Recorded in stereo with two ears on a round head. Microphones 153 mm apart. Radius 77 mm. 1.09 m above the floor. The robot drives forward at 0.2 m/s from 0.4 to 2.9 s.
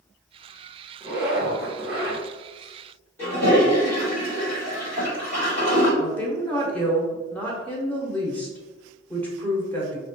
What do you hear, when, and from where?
1.0 s a zipper: 15° right (ahead or behind), 1.2 m; by 2.2 s 10° right (ahead or behind), 1.4 m
3.2 s a toilet flushing: 10° left (ahead or behind), 1.6 m
6.0 s a woman speaking: 10° left (ahead or behind), 0.7 m